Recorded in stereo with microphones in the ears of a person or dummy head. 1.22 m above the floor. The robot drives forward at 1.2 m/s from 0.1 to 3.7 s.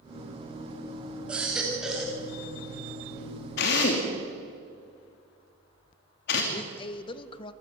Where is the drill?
60° left (ahead or behind), 2.5 m; by 6.4 s 55° left (ahead or behind), 2.5 m.